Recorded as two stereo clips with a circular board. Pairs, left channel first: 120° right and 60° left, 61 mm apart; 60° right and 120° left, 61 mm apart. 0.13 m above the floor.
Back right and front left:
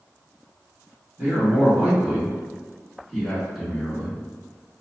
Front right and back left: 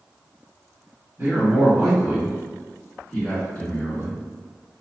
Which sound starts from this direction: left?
A man speaking, at 1.2 s.